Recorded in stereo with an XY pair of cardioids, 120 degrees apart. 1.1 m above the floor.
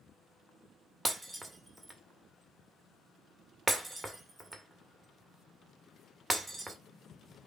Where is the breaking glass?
15° right, 2.0 m.